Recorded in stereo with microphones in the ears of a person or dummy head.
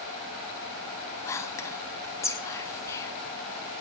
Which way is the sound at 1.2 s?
15° left (ahead or behind).